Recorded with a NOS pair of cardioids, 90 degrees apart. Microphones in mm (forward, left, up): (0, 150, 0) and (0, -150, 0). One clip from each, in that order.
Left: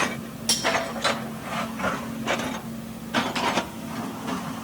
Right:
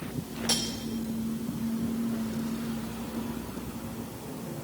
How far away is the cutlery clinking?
About 0.9 m.